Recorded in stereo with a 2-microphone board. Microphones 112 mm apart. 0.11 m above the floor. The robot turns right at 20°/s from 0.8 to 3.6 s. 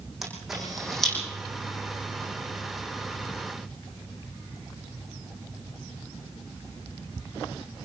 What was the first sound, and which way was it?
A camera shutter, centre (ahead or behind).